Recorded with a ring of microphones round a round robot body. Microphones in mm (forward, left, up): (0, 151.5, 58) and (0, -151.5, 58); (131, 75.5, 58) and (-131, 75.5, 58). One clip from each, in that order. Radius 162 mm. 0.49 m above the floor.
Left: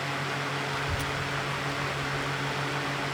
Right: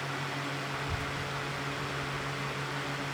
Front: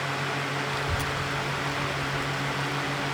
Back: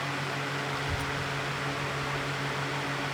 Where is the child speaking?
60° left; by 3.1 s 5° left.